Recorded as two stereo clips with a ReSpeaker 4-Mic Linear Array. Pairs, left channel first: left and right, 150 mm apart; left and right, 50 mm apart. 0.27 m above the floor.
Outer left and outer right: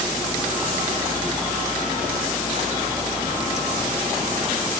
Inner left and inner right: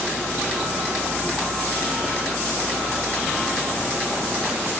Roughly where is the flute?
No flute in this recording.